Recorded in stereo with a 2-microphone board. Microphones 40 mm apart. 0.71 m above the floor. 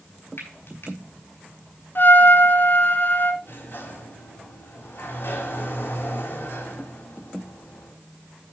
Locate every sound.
0.4 s frying: 65° left (ahead or behind), 4.5 m
1.9 s a trumpet: 55° left (ahead or behind), 1.3 m
3.4 s a sliding door: 60° left (ahead or behind), 4 m